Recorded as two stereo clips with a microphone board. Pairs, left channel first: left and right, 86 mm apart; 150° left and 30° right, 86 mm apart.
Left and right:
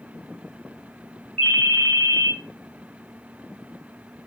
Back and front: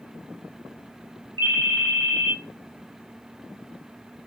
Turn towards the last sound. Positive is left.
turn(degrees=170)